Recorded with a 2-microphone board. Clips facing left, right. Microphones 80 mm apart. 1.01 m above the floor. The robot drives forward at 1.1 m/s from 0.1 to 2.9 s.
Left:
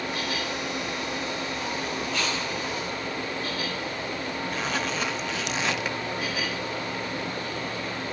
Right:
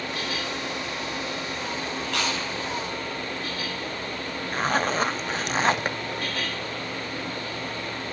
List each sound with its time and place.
2.0 s chewing: 80° right, 7 m; by 2.4 s 85° right, 7 m
4.5 s a zipper: 40° right (ahead or behind), 0.5 m